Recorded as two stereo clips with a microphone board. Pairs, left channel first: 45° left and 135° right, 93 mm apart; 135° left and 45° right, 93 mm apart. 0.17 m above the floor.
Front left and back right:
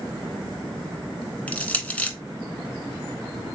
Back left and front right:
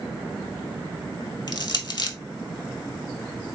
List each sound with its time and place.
1.5 s crushing: 115° left, 0.6 m